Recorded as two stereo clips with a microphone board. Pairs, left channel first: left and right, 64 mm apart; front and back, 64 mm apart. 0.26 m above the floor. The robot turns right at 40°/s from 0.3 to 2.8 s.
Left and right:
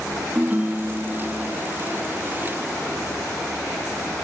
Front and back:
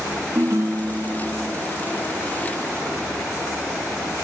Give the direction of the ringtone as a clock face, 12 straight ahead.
5 o'clock.